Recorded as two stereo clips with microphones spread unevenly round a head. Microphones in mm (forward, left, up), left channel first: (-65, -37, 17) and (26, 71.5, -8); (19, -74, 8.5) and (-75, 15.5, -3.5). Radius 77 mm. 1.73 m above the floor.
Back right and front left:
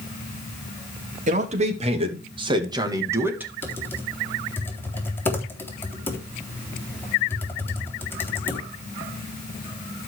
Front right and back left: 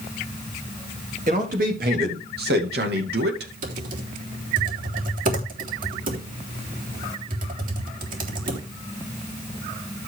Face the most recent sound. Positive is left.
turn(degrees=155)